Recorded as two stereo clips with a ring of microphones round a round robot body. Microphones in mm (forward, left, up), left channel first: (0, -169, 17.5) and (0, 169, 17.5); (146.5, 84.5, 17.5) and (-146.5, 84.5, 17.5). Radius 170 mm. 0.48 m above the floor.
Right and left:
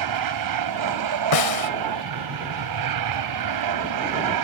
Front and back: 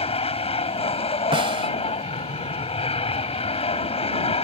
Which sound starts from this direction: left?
An aircraft, at 0.0 s.